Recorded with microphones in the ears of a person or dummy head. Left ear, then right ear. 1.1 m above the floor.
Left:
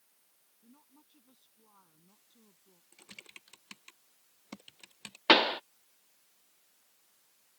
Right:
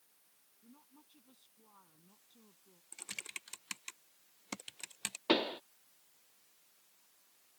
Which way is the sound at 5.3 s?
20° left (ahead or behind).